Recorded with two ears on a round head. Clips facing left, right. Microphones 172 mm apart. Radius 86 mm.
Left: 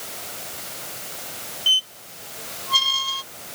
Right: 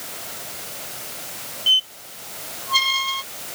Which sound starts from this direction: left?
A squeak, at 1.7 s.